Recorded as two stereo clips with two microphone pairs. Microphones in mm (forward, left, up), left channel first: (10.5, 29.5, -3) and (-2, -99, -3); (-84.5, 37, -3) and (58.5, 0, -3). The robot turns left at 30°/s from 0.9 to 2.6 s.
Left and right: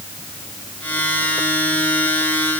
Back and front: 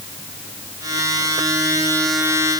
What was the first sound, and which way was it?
Only background noise.